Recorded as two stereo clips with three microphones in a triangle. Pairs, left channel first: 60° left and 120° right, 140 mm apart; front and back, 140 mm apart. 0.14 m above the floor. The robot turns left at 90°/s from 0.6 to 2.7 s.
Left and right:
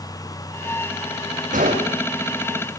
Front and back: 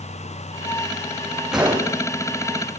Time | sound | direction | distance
1.5 | a gunshot | 95° right | 5 m